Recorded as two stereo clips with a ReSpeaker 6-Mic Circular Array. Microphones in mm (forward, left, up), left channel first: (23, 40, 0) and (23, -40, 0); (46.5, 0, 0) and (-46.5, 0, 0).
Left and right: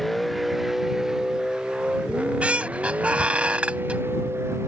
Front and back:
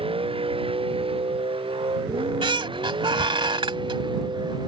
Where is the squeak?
165° right.